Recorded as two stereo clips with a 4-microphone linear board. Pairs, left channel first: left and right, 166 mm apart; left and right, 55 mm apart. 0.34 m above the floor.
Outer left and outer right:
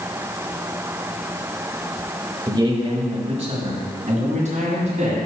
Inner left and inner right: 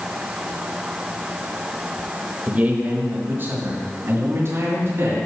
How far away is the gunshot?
I don't hear a gunshot.